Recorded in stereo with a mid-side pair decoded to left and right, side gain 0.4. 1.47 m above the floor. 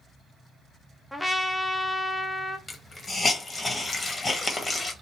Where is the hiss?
25° left, 1.2 m.